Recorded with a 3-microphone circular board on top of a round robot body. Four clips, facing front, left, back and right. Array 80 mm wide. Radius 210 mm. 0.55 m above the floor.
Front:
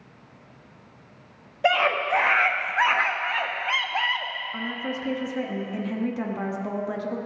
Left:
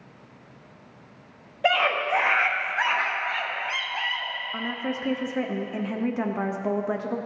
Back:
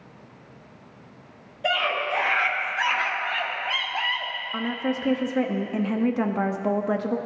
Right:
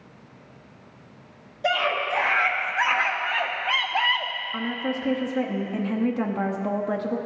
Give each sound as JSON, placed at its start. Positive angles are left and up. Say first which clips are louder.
{"t": 1.6, "sound": "a scream", "louder": "left 1 dB, front 3 dB", "azimuth_deg": 35, "distance_m": 1.5}
{"t": 4.5, "sound": "a woman speaking", "louder": "right 2 dB, back 6 dB", "azimuth_deg": 165, "distance_m": 0.8}